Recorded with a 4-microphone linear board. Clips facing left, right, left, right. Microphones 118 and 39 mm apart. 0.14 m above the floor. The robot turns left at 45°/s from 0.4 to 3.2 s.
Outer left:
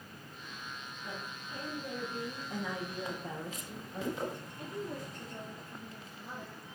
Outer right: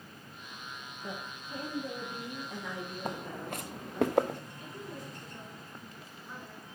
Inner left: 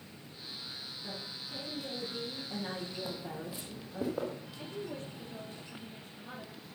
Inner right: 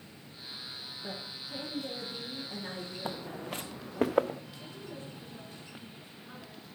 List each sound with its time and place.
1.0 s a woman speaking: 120° right, 6 m; by 4.0 s 140° left, 6 m
3.0 s footsteps: 55° right (ahead or behind), 0.9 m; by 4.4 s 85° right, 1.2 m
4.6 s a woman speaking: 70° left (ahead or behind), 4 m